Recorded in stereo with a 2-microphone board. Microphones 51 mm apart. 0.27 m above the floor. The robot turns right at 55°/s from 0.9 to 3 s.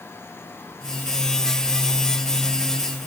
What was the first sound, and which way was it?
Only background noise.